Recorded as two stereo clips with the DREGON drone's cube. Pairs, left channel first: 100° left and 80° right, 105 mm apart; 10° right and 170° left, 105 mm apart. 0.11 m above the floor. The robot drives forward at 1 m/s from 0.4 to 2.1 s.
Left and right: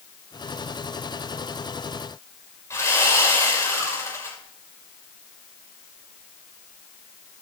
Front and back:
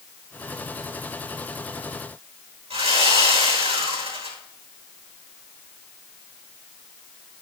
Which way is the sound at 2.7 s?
160° left.